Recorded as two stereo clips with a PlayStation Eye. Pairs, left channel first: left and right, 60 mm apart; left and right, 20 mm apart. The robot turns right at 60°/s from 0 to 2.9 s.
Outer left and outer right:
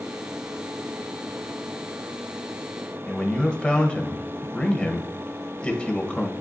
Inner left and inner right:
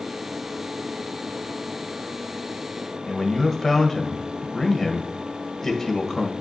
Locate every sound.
3.1 s a man speaking: 20° left (ahead or behind), 1.2 m